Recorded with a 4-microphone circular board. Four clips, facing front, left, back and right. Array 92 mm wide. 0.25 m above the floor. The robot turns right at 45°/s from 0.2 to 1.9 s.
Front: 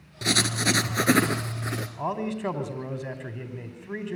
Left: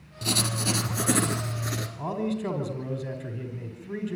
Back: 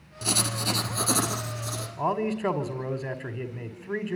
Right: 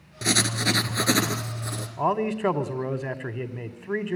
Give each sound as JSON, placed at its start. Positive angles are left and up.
{"t": 0.2, "sound": "writing", "azimuth_deg": -55, "distance_m": 2.5}
{"t": 2.0, "sound": "a man speaking", "azimuth_deg": -105, "distance_m": 2.0}